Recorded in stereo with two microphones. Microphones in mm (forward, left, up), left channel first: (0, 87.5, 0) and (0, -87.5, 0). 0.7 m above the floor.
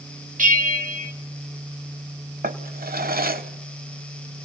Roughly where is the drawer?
Right.